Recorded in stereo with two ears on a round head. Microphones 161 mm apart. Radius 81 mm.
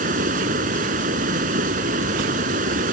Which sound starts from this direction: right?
Running water, at 0.0 s.